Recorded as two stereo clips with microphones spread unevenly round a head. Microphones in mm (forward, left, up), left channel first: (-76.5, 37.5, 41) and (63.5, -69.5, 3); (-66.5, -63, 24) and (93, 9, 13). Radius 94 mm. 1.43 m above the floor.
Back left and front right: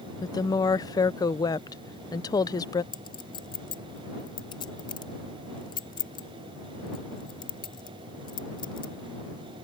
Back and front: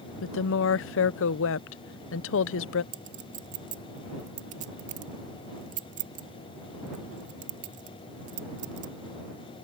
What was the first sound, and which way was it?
A woman speaking, 145° right.